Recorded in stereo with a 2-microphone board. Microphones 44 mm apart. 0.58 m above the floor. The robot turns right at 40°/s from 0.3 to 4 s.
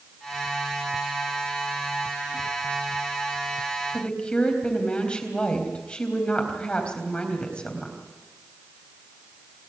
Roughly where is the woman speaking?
Left.